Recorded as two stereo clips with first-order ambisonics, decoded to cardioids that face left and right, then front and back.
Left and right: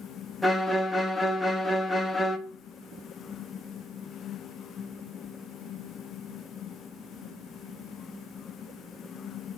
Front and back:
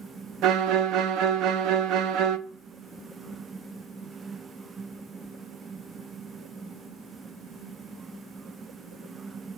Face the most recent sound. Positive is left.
turn(degrees=175)